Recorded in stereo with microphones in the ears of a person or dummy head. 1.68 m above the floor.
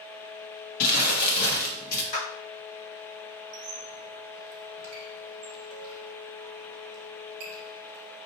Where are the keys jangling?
I don't hear keys jangling.